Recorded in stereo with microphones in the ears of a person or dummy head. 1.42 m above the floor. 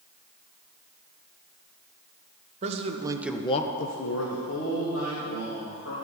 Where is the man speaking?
40° right (ahead or behind), 1.5 m; by 6.0 s 70° left (ahead or behind), 4 m.